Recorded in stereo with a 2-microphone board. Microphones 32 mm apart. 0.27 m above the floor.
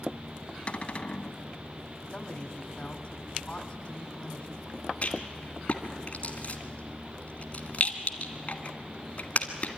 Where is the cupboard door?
40° left (ahead or behind), 0.6 m.